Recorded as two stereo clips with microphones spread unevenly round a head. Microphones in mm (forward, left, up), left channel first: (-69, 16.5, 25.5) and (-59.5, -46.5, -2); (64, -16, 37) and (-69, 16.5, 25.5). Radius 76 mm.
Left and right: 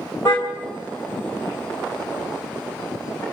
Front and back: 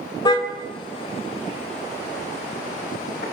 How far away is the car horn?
About 3 m.